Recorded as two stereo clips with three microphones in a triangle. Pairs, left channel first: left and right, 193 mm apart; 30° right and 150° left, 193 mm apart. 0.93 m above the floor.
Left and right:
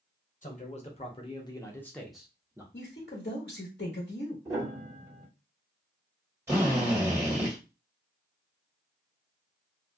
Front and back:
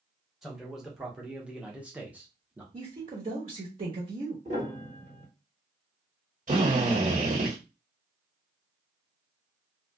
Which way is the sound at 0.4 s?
60° left.